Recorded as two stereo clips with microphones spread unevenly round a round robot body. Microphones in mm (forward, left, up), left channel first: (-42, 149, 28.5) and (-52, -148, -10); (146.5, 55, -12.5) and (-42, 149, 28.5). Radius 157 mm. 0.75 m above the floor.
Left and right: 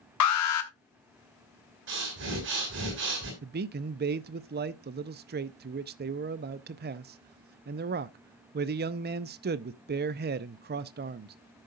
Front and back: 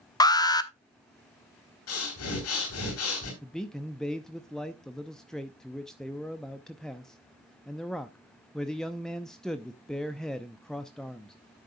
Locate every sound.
0.2 s an alarm: 45° left, 1.1 m
1.9 s breathing: 35° right, 4 m
3.4 s a man speaking: 95° right, 0.5 m